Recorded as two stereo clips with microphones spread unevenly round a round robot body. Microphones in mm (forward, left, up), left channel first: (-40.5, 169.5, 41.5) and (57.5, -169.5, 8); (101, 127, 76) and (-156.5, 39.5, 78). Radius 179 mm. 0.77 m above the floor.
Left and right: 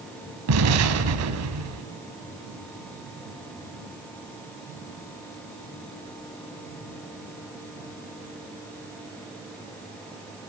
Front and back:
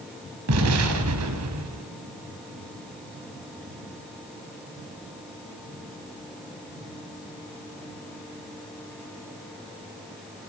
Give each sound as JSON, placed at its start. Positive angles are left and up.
{"t": 0.5, "sound": "an explosion", "azimuth_deg": -120, "distance_m": 4.0}